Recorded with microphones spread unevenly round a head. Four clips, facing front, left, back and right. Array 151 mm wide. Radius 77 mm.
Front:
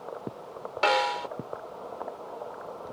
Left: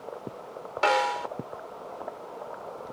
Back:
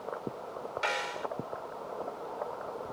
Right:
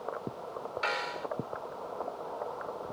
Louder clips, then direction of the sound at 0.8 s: Left 12 dB, front 10 dB; 45° left.